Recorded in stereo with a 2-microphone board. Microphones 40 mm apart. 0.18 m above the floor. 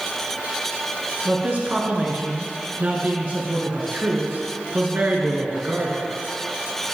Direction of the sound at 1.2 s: 45° right (ahead or behind).